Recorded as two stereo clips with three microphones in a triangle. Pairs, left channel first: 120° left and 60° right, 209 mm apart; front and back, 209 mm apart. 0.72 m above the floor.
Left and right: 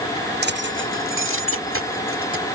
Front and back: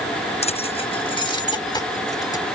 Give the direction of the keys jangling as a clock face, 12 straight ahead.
2 o'clock.